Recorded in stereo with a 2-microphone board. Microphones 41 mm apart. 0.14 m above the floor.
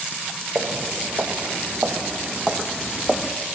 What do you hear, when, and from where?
0.6 s footsteps: 60° right (ahead or behind), 1.5 m; by 3.3 s 25° left (ahead or behind), 0.6 m